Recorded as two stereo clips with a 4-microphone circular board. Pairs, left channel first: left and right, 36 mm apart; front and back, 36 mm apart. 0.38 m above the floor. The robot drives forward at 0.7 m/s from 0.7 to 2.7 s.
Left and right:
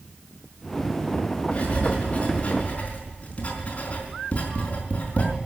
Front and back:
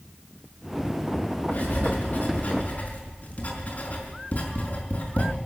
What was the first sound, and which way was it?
Writing, 30° left.